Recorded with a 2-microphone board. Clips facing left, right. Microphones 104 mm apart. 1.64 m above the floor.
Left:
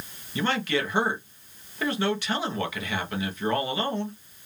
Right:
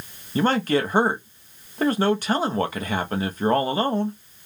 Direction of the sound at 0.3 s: 40° right (ahead or behind).